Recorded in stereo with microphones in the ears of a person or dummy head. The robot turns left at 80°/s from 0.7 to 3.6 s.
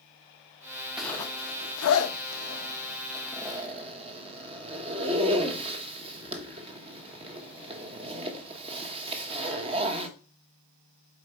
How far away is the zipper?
About 1.1 m.